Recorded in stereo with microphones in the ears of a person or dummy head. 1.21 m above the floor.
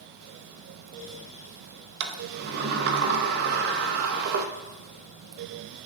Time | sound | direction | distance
2.0 | a sliding door | 60° right (ahead or behind) | 0.8 m